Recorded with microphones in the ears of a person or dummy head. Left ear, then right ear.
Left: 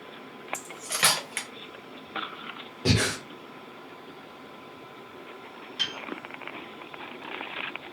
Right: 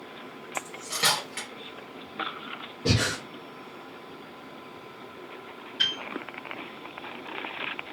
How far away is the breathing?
About 0.5 m.